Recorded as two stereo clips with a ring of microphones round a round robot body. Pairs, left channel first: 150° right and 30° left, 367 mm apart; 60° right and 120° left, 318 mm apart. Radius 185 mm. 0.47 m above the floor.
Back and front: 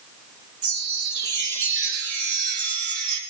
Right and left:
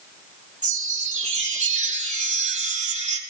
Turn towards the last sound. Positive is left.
turn(degrees=55)